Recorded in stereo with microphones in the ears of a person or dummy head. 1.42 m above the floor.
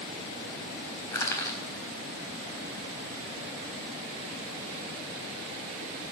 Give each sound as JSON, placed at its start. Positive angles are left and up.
{"t": 1.1, "sound": "crushing", "side_deg": 15, "distance_m": 4.0}